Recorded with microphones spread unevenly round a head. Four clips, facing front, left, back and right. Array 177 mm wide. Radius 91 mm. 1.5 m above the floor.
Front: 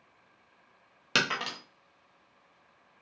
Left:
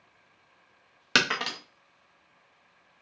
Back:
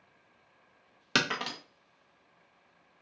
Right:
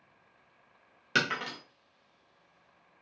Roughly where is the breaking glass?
Ahead left.